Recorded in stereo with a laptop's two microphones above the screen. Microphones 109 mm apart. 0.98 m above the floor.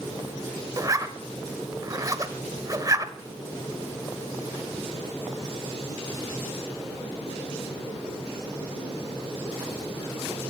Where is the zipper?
30° right (ahead or behind), 1.2 m.